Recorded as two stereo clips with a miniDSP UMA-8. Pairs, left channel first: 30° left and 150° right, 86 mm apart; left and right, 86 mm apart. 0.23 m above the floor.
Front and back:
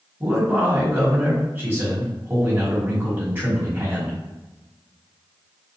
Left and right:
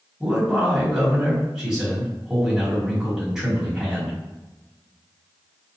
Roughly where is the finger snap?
No finger snap in this recording.